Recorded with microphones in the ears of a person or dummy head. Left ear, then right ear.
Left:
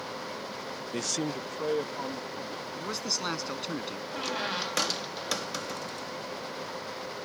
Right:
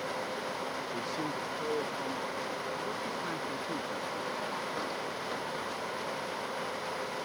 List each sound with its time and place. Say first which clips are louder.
0.9 s a man speaking: left 3 dB; 60° left (ahead or behind); by 2.6 s centre (ahead or behind)
2.7 s a man speaking: left 3 dB; 80° left
4.1 s a squeak: left 4 dB; 70° left (ahead or behind)